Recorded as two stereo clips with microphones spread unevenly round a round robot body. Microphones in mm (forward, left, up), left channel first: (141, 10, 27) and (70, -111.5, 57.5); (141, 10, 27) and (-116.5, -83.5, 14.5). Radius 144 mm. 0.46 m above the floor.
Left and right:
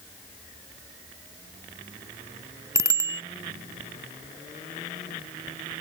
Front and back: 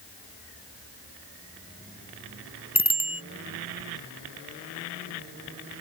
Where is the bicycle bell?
50° right.